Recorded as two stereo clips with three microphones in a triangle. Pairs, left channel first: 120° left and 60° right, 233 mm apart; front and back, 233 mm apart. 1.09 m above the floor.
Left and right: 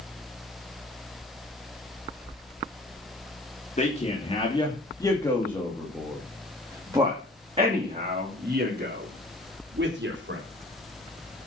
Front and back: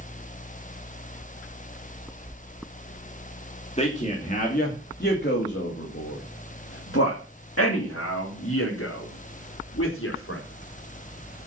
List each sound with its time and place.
3.8 s a man speaking: 60° left, 2.5 m; by 10.4 s 25° right, 3.5 m